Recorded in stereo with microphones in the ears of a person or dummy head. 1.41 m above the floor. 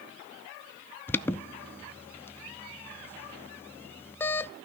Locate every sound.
1.1 s an alarm: 10° left (ahead or behind), 0.5 m